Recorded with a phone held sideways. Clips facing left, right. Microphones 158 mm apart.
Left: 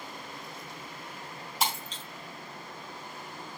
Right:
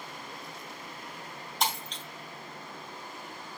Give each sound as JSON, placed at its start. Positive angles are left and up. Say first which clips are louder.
{"t": 1.6, "sound": "breaking glass", "louder": "even", "side_deg": 5, "distance_m": 4.0}